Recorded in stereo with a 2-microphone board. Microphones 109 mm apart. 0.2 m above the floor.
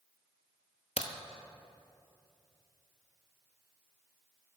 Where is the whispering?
No whispering in this recording.